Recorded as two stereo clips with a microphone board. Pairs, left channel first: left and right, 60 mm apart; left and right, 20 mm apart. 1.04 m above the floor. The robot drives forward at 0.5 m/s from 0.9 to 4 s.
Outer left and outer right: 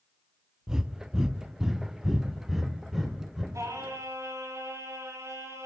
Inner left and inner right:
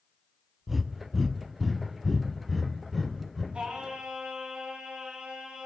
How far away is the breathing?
About 0.5 m.